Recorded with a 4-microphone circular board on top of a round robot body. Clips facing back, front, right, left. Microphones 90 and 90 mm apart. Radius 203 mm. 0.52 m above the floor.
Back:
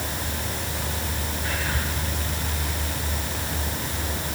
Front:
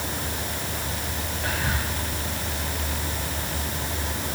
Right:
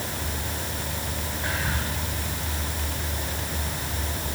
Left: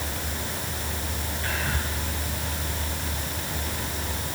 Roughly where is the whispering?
Ahead.